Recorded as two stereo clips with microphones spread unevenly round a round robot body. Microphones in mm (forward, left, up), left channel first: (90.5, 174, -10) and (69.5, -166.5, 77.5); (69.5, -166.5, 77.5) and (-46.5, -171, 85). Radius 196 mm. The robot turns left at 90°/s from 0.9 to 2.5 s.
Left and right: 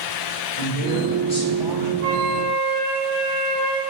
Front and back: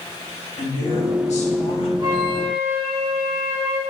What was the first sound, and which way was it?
A woman speaking, 55° left.